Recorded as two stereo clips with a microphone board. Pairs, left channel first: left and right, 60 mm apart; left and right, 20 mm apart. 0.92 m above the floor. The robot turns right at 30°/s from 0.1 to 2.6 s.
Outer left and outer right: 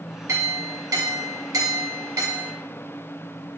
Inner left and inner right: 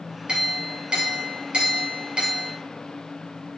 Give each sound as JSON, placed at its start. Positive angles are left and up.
{"t": 0.3, "sound": "a clink", "azimuth_deg": -120, "distance_m": 1.7}